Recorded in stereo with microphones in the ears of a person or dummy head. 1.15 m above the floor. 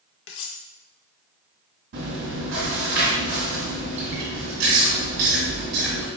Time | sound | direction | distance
0.3 | cutlery clinking | 70° left (ahead or behind) | 0.7 m
1.9 | chewing | 70° right (ahead or behind) | 2 m